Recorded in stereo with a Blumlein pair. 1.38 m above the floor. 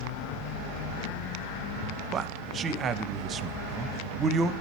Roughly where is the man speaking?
Ahead right.